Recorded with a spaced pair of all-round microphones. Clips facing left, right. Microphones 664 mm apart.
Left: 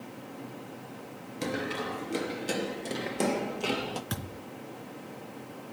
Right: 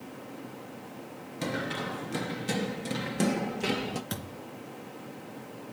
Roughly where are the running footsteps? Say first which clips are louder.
Left 1 dB; centre.